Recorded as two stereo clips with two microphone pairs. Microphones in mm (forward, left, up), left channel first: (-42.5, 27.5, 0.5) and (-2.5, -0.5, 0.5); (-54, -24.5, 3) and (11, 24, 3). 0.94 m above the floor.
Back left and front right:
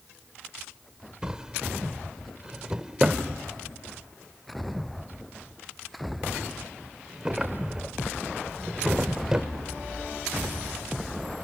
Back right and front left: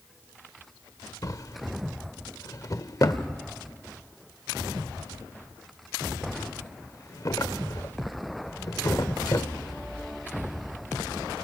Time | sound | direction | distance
1.2 | a drawer | 110° right | 1.0 m